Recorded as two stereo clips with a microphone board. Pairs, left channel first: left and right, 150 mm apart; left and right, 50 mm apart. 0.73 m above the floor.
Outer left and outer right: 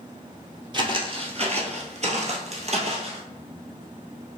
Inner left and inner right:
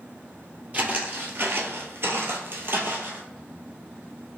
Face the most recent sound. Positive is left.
turn(degrees=-45)  # may be behind; listen again after turning